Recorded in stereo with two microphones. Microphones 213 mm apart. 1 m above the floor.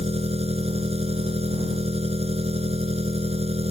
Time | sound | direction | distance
0.0 | an engine running | 30° right (ahead or behind) | ?